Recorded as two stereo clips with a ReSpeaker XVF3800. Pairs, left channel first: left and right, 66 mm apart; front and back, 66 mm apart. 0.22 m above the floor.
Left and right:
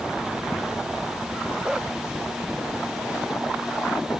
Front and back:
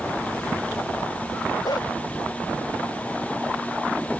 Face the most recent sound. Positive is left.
turn(degrees=-10)